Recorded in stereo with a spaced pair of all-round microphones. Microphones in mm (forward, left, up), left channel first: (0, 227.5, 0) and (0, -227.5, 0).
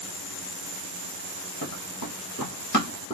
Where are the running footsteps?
45° left (ahead or behind), 1.7 m; by 3.1 s 15° left (ahead or behind), 1.2 m.